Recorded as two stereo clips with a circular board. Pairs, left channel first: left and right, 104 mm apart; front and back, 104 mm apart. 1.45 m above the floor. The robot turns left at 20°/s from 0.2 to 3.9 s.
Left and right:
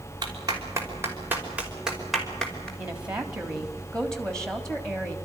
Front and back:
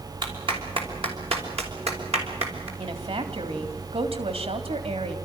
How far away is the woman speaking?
About 3.5 m.